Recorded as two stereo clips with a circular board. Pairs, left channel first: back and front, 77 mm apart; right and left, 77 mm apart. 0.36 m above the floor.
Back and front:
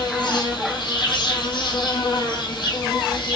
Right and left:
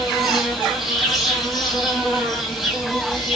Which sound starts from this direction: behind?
An insect, at 0.0 s.